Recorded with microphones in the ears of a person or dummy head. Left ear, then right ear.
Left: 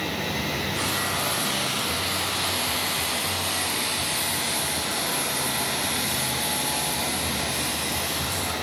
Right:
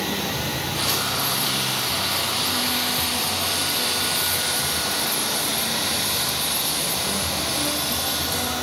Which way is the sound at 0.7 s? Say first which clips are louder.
Right 5 dB; 5° right (ahead or behind).